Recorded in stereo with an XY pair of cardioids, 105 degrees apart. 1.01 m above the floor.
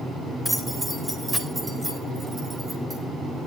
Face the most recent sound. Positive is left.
turn(degrees=-25)